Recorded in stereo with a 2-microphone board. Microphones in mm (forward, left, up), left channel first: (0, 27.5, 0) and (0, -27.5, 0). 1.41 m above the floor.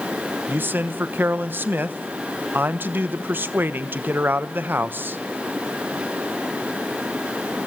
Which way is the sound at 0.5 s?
40° right (ahead or behind).